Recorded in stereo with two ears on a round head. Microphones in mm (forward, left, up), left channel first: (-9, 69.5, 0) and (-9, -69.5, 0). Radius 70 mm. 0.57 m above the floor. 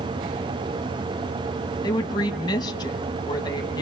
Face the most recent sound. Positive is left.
turn(degrees=30)  # may be behind; listen again after turning